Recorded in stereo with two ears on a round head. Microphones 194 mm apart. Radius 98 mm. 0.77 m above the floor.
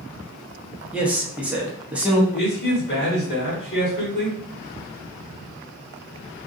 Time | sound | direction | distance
0.9 | a man speaking | 5° right (ahead or behind) | 0.8 m
2.3 | a man speaking | 50° left (ahead or behind) | 1.8 m